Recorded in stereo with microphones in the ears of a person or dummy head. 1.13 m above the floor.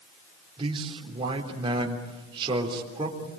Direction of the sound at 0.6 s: 25° right (ahead or behind).